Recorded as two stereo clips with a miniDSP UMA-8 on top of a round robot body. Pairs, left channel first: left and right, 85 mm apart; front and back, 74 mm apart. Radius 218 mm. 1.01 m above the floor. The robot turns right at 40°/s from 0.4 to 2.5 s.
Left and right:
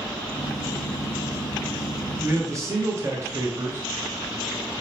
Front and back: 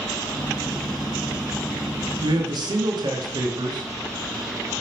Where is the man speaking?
160° right, 0.9 m; by 3.9 s 145° right, 0.9 m.